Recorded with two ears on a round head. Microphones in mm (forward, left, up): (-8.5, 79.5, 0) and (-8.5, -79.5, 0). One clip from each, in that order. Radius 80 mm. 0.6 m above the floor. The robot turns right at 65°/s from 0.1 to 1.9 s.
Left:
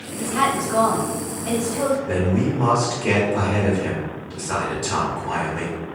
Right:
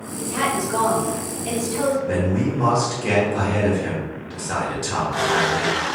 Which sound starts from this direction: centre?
A man speaking, at 2.1 s.